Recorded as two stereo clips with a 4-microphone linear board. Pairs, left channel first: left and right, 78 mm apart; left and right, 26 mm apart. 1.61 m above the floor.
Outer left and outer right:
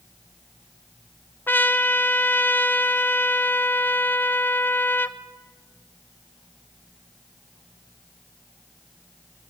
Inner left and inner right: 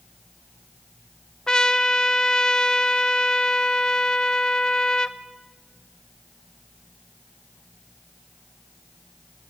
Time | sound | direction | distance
1.5 | a trumpet | 25° left (ahead or behind) | 0.8 m